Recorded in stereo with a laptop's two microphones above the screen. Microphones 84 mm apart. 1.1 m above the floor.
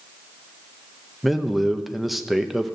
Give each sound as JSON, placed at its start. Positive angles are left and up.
{"t": 1.2, "sound": "a man speaking", "side_deg": 0, "distance_m": 0.6}